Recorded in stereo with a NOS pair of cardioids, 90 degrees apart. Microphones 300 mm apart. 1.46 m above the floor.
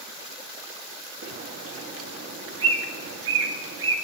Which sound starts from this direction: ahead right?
A bird, at 1.2 s.